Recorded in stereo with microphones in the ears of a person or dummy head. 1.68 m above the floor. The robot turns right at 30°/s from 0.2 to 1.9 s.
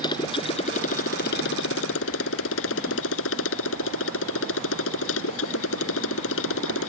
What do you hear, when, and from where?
0.0 s a motorcycle: 25° left; by 6.9 s 75° left